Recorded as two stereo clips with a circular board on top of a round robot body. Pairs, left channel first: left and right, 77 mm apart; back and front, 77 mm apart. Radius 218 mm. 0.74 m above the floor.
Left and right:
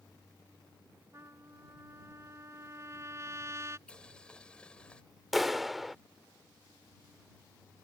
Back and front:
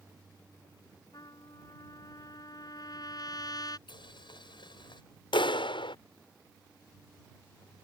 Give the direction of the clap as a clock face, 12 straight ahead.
6 o'clock.